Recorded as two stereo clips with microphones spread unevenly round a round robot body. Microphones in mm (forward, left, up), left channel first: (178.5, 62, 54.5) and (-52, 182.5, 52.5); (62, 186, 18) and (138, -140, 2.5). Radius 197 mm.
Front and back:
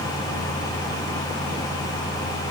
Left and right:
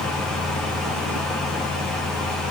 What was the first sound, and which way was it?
Only background noise.